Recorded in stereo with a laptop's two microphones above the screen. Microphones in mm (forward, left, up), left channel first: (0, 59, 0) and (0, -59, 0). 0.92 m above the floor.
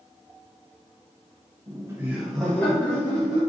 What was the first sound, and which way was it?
Laughter, 35° right (ahead or behind).